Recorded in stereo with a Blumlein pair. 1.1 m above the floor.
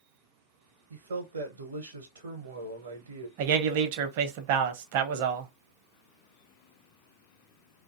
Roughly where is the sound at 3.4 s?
Ahead right.